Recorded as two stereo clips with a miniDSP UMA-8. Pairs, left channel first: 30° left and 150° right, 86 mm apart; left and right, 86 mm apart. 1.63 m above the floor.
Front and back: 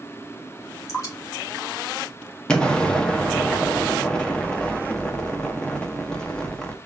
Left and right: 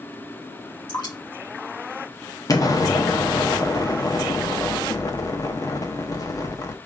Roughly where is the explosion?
Left.